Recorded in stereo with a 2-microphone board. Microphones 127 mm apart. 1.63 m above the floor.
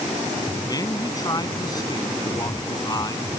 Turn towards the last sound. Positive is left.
turn(degrees=30)  # may be behind; listen again after turning